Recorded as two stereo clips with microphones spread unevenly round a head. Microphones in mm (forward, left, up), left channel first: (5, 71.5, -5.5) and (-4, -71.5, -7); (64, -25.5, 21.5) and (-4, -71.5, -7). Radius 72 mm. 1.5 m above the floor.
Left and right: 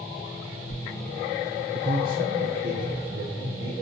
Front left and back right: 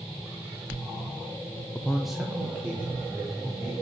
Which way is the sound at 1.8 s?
40° right.